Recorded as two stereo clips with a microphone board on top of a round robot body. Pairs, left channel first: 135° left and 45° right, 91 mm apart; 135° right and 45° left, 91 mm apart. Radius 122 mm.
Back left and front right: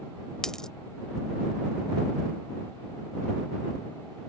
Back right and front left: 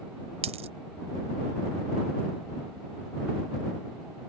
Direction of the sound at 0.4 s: 50° left.